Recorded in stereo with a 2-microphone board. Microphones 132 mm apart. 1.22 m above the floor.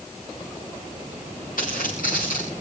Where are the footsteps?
75° left (ahead or behind), 7.5 m.